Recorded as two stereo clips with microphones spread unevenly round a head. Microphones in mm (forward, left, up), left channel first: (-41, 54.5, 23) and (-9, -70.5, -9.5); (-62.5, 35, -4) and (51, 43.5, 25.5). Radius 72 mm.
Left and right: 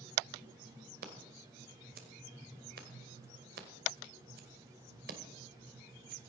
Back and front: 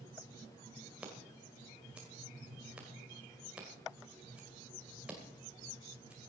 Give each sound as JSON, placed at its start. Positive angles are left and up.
{"t": 1.0, "sound": "scissors", "azimuth_deg": -65, "distance_m": 2.0}